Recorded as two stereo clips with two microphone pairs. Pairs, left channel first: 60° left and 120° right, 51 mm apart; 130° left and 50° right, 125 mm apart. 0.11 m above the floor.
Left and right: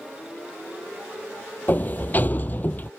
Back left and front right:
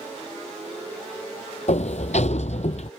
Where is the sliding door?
110° left.